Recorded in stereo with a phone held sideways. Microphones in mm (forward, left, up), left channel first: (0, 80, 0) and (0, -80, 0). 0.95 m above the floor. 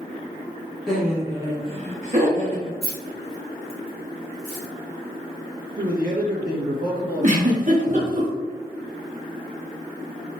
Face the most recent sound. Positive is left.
turn(degrees=-50)  # may be behind; listen again after turning